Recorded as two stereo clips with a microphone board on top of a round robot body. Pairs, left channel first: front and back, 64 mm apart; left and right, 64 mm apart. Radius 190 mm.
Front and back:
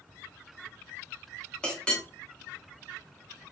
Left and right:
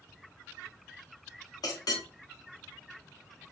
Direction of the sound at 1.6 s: 75° left.